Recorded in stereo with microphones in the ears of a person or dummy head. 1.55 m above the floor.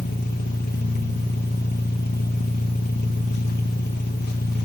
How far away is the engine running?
About 1.6 m.